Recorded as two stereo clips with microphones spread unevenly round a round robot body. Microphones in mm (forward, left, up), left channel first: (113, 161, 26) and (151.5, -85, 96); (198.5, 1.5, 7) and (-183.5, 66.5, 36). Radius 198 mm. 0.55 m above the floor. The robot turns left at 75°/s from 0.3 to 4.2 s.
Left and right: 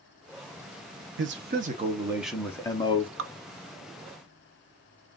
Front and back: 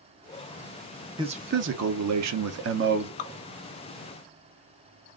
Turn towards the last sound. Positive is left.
turn(degrees=-110)